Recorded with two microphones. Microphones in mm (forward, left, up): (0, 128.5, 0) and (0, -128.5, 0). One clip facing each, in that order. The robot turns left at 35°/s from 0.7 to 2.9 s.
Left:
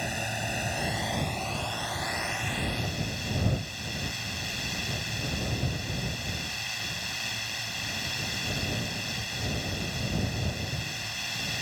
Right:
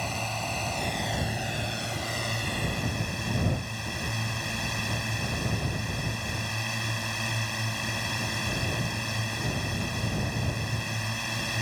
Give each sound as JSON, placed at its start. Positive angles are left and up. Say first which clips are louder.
{"t": 0.0, "sound": "a drone", "louder": "even", "azimuth_deg": 15}